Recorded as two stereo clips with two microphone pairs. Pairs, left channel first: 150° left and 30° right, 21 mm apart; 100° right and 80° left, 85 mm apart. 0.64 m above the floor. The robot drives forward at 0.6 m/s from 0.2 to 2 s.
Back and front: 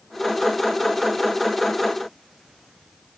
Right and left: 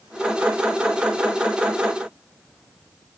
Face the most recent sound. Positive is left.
No sound to turn to.